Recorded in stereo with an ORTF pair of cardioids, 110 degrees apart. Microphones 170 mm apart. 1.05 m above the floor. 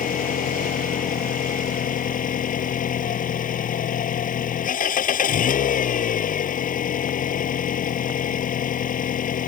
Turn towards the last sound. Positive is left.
turn(degrees=50)